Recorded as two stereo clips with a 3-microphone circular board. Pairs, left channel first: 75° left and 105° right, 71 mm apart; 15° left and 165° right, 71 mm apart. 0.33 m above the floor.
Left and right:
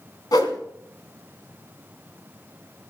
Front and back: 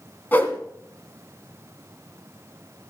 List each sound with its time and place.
0.3 s a whoosh: 75° left, 2 m